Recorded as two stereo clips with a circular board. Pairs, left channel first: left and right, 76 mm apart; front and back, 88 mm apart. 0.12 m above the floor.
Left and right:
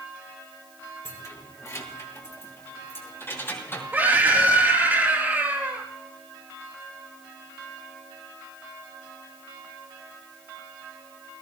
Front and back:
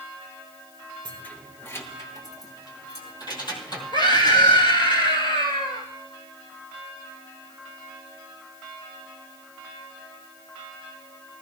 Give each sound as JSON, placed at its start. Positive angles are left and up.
{"t": 1.1, "sound": "keys jangling", "azimuth_deg": 75, "distance_m": 1.4}
{"t": 3.9, "sound": "a scream", "azimuth_deg": -25, "distance_m": 3.5}